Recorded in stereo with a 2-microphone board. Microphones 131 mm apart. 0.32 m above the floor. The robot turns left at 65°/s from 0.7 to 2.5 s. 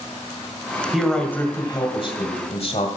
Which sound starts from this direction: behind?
A man speaking, at 0.9 s.